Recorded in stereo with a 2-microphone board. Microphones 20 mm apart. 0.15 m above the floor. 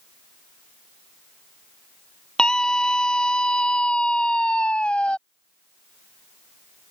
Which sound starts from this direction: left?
A scream, at 2.4 s.